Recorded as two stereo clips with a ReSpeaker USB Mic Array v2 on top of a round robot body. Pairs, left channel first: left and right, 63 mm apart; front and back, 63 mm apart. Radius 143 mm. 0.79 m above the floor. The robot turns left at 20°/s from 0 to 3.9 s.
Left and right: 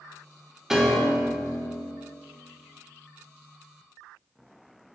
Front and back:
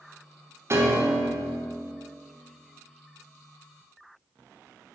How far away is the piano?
About 1.2 m.